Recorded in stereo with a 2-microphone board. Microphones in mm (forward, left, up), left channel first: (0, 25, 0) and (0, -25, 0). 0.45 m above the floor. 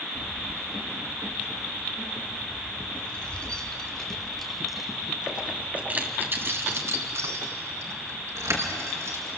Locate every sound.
0.1 s keys jangling: 35° left (ahead or behind), 6.5 m; by 9.3 s 80° right, 4 m